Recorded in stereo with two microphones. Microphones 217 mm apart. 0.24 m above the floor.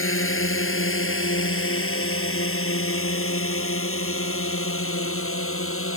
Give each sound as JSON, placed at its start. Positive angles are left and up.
{"t": 0.0, "sound": "a drone", "side_deg": 70}